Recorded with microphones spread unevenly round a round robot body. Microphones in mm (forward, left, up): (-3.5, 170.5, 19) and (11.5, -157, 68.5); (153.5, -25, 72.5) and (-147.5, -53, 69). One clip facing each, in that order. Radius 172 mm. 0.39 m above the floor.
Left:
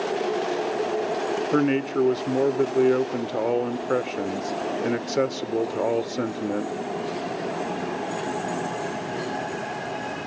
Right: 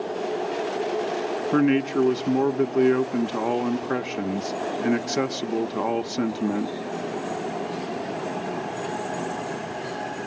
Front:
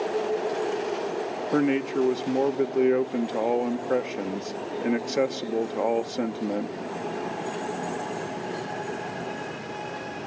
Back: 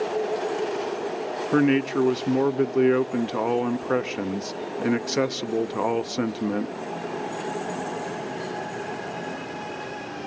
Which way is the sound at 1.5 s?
160° right.